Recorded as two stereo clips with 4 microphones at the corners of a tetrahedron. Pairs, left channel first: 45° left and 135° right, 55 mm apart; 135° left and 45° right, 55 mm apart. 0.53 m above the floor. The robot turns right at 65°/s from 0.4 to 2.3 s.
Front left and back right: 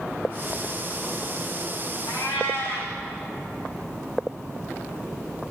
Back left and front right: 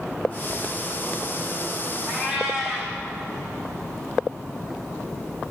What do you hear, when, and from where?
2.1 s a cat meowing: 80° left, 6 m; by 3.0 s 95° left, 6 m